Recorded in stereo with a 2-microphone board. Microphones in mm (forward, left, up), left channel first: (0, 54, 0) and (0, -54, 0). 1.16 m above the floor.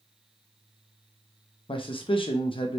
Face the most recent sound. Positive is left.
turn(degrees=50)  # may be behind; listen again after turning